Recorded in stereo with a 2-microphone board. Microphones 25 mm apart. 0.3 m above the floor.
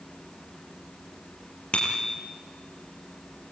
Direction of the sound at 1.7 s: 40° left (ahead or behind).